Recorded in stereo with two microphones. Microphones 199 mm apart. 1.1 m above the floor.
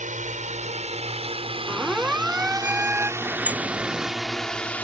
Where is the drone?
40° right (ahead or behind); by 4.8 s 5° left (ahead or behind).